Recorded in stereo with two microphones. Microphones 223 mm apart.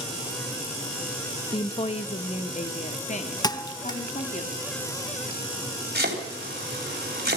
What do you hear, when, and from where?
1.5 s a woman speaking: 20° left (ahead or behind), 0.9 m; by 4.4 s 35° left (ahead or behind), 2.5 m
3.4 s a thud: 20° left (ahead or behind), 0.8 m
6.0 s chopping: 45° right (ahead or behind), 3.5 m